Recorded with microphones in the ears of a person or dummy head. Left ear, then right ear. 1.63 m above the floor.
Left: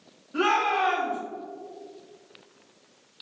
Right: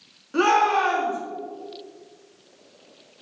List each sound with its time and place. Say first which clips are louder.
0.3 s a shout: right 4 dB; 55° right (ahead or behind), 2.5 m